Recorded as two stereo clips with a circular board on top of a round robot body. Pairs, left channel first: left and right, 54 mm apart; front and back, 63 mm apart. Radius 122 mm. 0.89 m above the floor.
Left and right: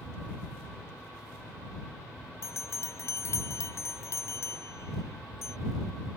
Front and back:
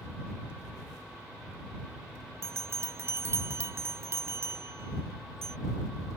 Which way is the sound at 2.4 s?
130° left.